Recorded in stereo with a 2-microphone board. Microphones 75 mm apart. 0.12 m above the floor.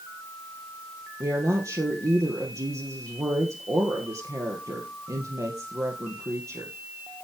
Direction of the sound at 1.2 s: 45° right (ahead or behind).